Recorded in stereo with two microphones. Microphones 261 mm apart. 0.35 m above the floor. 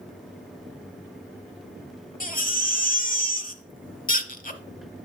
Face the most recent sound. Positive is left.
turn(degrees=30)  # may be behind; listen again after turning